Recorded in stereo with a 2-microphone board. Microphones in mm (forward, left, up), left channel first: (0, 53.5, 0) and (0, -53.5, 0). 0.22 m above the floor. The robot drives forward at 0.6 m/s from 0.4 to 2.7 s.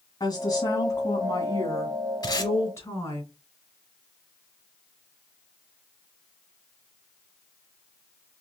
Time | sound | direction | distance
0.2 | a woman speaking | 40° left (ahead or behind) | 1.8 m
2.2 | tape being pulled | 40° left (ahead or behind) | 1.2 m